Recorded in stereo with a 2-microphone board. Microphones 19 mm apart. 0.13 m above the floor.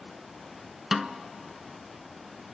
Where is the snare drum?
15° right (ahead or behind), 0.8 m.